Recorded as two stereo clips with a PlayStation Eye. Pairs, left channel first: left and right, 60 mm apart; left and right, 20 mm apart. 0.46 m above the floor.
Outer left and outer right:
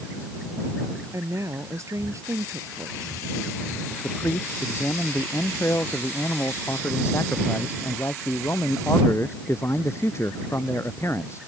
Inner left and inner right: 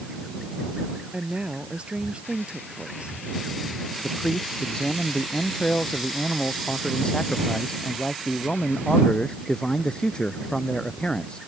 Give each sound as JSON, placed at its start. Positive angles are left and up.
{"t": 1.1, "sound": "a woman speaking", "side_deg": -55}
{"t": 4.0, "sound": "a man speaking", "side_deg": 45}